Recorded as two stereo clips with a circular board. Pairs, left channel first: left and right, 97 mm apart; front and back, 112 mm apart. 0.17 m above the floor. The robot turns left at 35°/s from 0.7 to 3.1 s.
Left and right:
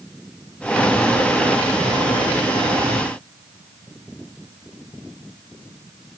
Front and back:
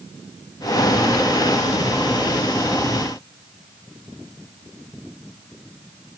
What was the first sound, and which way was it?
Only background noise.